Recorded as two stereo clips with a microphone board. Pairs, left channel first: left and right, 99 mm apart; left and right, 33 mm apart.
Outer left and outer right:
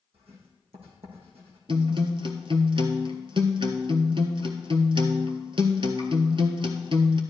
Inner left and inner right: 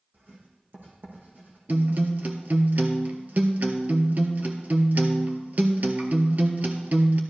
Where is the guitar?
60° right (ahead or behind), 1.2 m.